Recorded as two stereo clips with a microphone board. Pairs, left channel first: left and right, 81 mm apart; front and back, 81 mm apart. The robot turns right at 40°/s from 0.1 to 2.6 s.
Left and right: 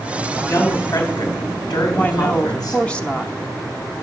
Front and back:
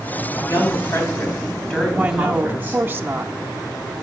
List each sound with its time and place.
0.4 s a woman speaking: 30° left, 3 m; by 3.0 s 115° left, 3 m
2.0 s a woman speaking: 125° left, 0.8 m; by 3.3 s 150° left, 0.8 m